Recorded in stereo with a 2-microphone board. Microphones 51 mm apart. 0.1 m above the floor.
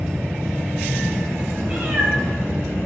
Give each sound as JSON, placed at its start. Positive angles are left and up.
{"t": 1.6, "sound": "a cat meowing", "side_deg": -25, "distance_m": 6.0}